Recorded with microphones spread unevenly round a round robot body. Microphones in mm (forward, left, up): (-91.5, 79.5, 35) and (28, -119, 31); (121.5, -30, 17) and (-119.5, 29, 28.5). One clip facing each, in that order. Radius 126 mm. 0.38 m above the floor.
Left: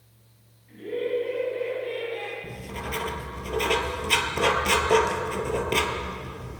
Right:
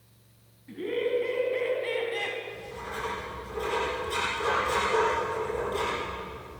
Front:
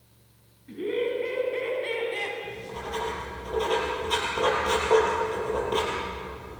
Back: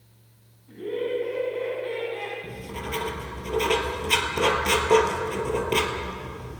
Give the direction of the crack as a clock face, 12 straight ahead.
No crack in this recording.